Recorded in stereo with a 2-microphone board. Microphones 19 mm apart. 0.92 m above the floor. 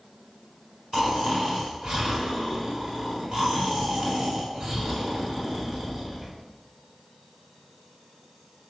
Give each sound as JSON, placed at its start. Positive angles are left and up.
{"t": 0.9, "sound": "snoring", "side_deg": -35, "distance_m": 3.5}